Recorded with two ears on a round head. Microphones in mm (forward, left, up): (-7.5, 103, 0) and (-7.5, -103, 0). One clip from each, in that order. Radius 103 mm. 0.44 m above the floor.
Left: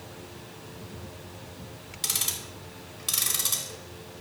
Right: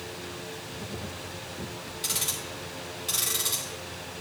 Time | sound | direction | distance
2.0 | ticking | 20° left (ahead or behind) | 2 m